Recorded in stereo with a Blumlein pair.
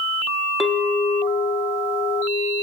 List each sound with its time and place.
0.6 s a clink: 10° left, 0.6 m